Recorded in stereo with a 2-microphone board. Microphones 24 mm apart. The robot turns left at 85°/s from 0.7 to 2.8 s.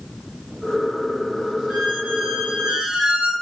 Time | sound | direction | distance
1.7 | a squeak | 10° right | 1.2 m